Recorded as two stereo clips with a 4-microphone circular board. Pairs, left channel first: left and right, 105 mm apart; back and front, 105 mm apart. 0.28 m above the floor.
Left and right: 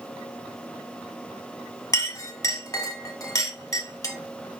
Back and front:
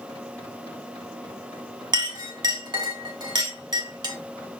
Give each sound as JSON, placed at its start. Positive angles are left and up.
{"t": 1.9, "sound": "a clink", "azimuth_deg": 40, "distance_m": 1.1}